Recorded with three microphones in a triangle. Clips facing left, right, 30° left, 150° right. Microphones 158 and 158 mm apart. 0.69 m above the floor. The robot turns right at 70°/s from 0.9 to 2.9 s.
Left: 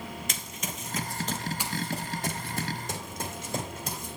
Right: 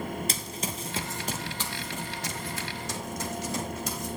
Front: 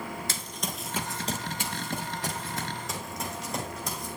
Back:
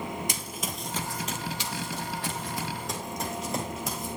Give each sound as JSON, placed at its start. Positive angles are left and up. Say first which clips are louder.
{"t": 0.3, "sound": "running footsteps", "louder": "right 4 dB, back 1 dB", "azimuth_deg": -90, "distance_m": 0.8}